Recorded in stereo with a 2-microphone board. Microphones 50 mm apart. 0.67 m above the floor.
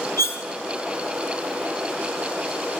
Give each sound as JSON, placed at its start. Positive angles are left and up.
{"t": 0.2, "sound": "cutlery clinking", "side_deg": 70, "distance_m": 0.9}